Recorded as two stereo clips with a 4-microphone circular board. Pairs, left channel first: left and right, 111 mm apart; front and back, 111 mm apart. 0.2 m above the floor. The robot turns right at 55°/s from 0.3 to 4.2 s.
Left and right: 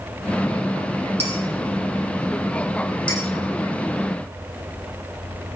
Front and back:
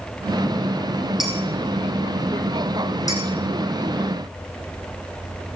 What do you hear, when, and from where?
1.2 s dishes clattering: 95° right, 5 m; by 1.3 s 85° right, 5 m
3.1 s dishes clattering: 55° left, 8 m; by 3.2 s 60° left, 8 m